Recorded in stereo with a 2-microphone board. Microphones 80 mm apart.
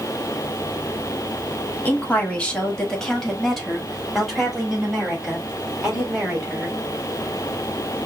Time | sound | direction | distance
1.9 | a woman speaking | 20° left (ahead or behind) | 1.1 m